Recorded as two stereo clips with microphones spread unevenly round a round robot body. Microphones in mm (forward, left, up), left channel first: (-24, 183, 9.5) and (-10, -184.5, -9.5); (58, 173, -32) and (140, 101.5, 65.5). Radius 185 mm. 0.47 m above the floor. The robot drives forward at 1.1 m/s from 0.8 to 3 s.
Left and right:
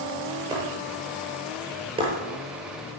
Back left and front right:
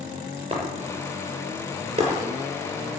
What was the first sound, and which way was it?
Breaking glass, 10° right.